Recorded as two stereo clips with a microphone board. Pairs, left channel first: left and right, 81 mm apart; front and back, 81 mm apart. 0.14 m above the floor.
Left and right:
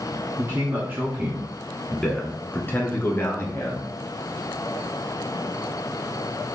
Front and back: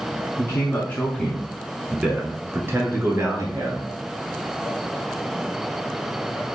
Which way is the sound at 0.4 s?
50° right.